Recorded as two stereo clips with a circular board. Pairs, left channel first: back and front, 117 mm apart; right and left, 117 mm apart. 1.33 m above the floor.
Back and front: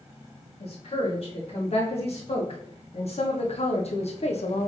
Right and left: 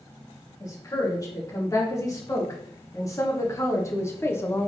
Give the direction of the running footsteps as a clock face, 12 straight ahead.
I don't hear running footsteps.